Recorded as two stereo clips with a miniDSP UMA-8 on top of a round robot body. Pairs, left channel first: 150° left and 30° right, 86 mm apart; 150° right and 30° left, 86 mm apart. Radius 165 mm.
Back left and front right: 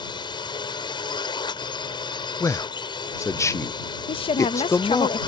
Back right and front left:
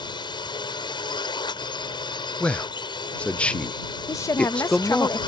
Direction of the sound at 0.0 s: Straight behind.